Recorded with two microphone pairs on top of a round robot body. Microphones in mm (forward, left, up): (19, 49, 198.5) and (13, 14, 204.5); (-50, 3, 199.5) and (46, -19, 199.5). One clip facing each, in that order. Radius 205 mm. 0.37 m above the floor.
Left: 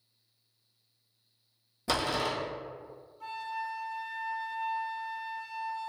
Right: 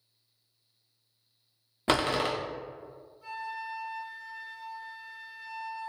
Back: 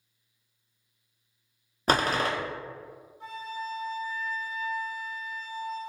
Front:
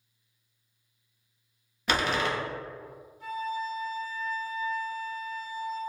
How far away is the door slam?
About 0.7 m.